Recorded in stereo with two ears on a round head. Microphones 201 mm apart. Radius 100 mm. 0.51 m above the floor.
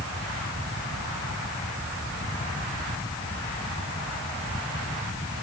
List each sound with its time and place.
Only background noise.